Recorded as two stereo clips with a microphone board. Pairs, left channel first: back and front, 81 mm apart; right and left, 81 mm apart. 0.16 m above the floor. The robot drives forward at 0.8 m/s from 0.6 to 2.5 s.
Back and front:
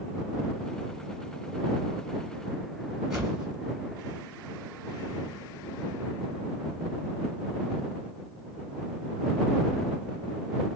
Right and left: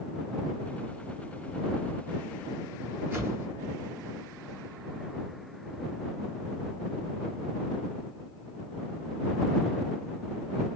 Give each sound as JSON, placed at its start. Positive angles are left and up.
{"t": 3.1, "sound": "a whoosh", "azimuth_deg": 80, "distance_m": 1.8}